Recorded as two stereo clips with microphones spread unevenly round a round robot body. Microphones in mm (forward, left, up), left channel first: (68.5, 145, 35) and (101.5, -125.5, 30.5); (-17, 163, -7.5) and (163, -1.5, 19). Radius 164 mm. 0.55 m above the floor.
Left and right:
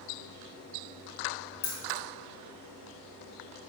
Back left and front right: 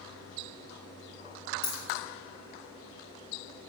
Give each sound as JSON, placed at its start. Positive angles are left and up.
{"t": 1.6, "sound": "keys jangling", "azimuth_deg": 135, "distance_m": 2.5}